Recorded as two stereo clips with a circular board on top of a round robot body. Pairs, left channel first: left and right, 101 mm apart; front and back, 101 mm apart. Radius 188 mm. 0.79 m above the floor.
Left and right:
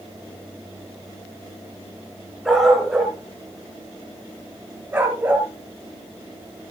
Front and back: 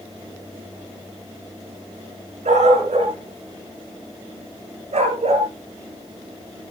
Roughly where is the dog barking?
Behind.